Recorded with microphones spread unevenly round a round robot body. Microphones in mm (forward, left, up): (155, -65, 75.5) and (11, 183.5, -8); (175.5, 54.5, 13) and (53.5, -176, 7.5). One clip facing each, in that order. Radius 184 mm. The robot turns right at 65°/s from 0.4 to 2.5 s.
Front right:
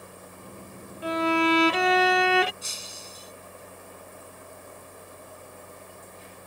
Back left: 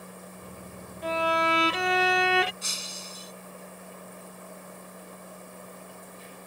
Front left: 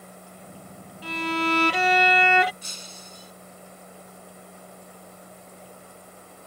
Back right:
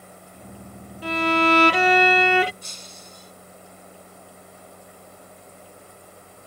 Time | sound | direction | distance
1.0 | a violin | 150° right | ?
2.6 | breaking glass | 105° left | ?